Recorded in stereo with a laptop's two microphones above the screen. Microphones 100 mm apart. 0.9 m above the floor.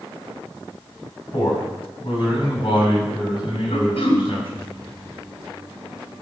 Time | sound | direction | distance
1.3 | a man speaking | 55° left (ahead or behind) | 6 m
3.7 | throat clearing | 80° left | 2 m